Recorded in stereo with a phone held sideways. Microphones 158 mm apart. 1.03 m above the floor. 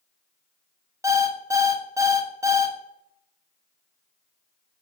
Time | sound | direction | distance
1.0 | an alarm clock | 20° right (ahead or behind) | 0.5 m